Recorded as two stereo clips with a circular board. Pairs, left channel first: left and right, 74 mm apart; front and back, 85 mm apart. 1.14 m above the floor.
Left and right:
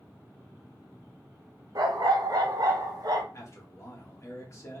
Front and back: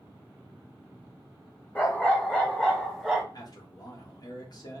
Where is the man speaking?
40° left, 1.5 m.